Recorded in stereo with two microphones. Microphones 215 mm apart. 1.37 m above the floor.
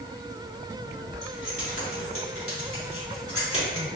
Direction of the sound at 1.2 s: 65° left (ahead or behind).